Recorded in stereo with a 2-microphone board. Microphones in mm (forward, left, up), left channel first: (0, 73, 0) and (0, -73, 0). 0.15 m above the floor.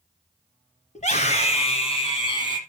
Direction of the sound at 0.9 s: 50° left (ahead or behind).